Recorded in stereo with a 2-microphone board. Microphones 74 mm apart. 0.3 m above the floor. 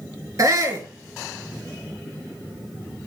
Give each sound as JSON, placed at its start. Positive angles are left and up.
{"t": 0.4, "sound": "a shout", "side_deg": -45, "distance_m": 4.0}